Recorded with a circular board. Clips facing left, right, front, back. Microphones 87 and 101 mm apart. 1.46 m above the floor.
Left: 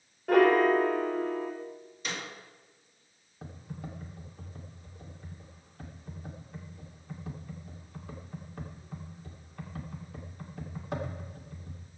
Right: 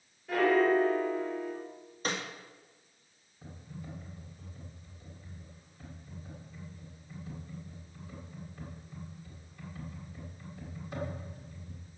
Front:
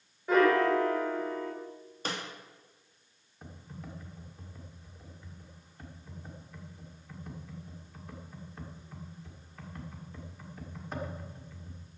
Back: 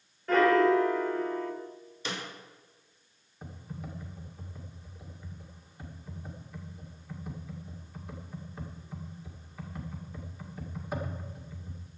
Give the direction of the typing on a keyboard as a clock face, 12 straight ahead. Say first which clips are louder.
Left 3 dB, back 3 dB; 9 o'clock.